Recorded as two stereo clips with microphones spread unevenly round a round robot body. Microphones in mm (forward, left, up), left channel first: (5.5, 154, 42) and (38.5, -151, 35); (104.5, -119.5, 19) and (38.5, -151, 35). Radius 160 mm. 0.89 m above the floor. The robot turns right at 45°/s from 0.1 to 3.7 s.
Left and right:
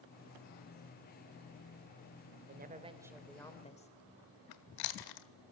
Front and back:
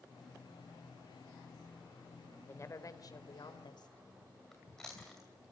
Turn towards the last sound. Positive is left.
turn(degrees=115)